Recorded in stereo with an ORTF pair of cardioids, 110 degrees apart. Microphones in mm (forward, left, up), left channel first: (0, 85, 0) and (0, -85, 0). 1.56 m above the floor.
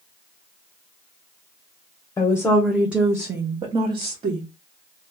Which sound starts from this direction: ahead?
A woman speaking, at 2.2 s.